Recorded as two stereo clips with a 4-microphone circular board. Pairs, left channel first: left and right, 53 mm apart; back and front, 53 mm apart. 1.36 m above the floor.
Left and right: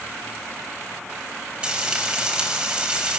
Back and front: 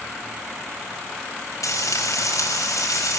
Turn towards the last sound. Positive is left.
turn(degrees=-165)